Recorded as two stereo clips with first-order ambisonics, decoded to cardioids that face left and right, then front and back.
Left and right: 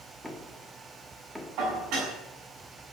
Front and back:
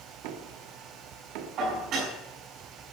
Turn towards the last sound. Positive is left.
turn(degrees=-130)